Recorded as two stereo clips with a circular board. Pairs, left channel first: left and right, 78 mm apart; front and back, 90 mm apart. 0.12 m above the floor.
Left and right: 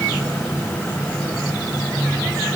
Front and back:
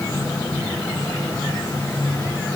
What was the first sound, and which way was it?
Only background noise.